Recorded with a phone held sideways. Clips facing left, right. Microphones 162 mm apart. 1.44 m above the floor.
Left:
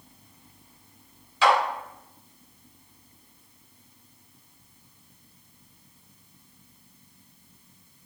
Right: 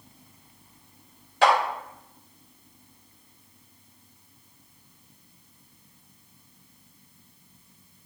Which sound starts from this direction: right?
A clap, at 1.4 s.